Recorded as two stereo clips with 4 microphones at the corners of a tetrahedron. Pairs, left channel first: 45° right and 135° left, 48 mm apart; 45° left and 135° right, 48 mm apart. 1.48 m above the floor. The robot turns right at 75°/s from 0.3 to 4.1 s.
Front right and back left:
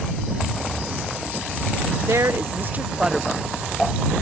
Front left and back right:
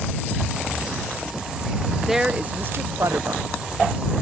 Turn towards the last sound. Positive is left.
turn(degrees=-70)